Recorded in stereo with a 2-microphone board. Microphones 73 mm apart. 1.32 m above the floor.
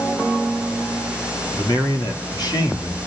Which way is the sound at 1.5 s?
55° left (ahead or behind).